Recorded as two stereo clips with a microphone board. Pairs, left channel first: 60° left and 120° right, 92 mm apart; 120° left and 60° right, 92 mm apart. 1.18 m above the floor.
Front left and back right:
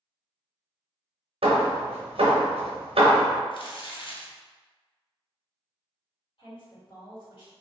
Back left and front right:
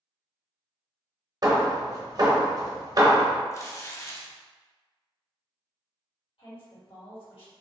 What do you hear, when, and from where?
1.4 s hammering: 105° right, 0.8 m
3.5 s crumpling: 65° left, 0.6 m
6.4 s a woman speaking: 95° left, 1.7 m